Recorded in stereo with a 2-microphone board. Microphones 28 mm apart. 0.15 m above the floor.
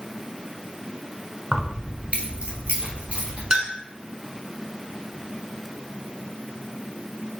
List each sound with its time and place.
1.5 s keys jangling: 30° right (ahead or behind), 0.8 m; by 3.4 s 50° right (ahead or behind), 3 m
3.5 s a clink: 35° right (ahead or behind), 1.0 m